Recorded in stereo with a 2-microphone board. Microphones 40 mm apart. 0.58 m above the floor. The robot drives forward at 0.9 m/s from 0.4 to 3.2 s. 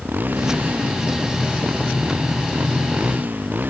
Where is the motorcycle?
50° right (ahead or behind).